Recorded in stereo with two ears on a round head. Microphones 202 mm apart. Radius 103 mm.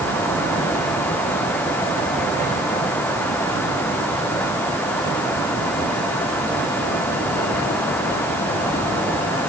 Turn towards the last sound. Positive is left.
No sound to turn to.